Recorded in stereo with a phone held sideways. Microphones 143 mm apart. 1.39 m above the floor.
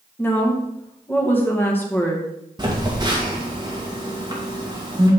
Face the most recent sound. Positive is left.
turn(degrees=-30)  # may be behind; listen again after turning